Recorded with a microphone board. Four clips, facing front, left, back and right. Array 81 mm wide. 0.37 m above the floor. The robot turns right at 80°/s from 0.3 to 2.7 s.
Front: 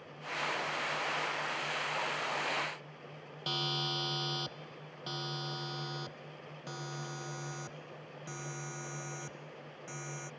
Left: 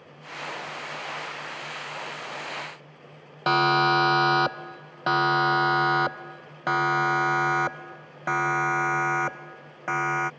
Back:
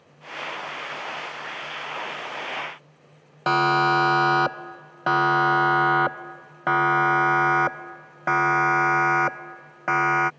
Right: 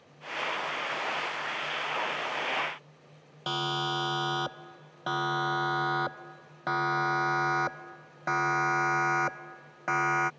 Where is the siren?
150° left; by 10.3 s straight behind.